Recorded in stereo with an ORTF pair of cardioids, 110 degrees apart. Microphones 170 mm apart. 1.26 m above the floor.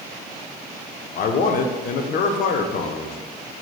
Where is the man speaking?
60° left, 0.5 m.